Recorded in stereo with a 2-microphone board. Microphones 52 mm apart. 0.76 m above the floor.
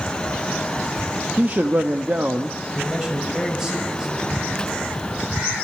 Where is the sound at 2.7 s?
10° right (ahead or behind), 4.5 m.